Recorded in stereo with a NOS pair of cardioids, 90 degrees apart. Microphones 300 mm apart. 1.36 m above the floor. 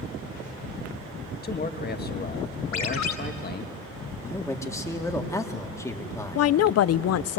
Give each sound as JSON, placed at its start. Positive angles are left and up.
{"t": 1.4, "sound": "a man speaking", "azimuth_deg": 30, "distance_m": 1.5}
{"t": 2.7, "sound": "a ringtone", "azimuth_deg": 65, "distance_m": 2.5}
{"t": 4.2, "sound": "a man speaking", "azimuth_deg": 10, "distance_m": 1.9}
{"t": 6.3, "sound": "a woman speaking", "azimuth_deg": 55, "distance_m": 0.5}